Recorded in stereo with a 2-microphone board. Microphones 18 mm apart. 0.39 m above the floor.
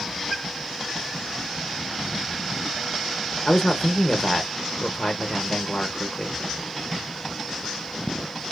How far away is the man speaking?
About 0.8 m.